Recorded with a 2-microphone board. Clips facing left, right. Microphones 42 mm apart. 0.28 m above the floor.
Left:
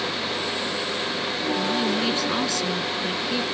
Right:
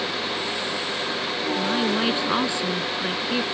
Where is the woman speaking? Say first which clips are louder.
Right 2 dB; 20° right (ahead or behind).